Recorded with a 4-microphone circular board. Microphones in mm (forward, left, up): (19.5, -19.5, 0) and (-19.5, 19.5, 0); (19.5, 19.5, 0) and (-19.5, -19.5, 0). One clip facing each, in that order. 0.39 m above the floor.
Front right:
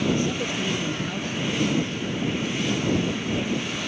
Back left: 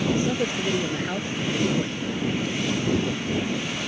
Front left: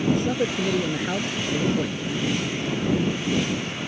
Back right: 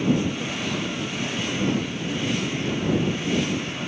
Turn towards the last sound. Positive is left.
turn(degrees=70)